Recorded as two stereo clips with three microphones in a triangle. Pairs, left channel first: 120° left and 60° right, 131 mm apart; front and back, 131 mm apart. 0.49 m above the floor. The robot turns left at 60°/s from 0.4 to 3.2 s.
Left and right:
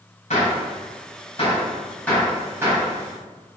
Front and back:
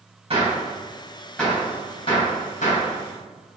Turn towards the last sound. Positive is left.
turn(degrees=-25)